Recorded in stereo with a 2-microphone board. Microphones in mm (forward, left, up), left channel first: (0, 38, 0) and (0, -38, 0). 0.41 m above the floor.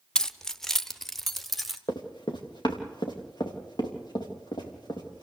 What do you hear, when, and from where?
0.1 s keys jangling: 10° left (ahead or behind), 0.5 m; by 1.8 s centre (ahead or behind), 1.2 m
1.9 s running footsteps: 70° left (ahead or behind), 2.5 m